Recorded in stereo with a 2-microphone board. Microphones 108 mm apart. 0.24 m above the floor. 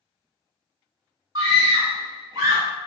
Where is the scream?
30° right (ahead or behind), 1.7 m.